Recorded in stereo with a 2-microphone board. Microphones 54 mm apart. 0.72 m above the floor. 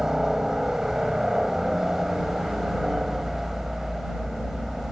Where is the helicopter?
10° right (ahead or behind); by 4.9 s centre (ahead or behind).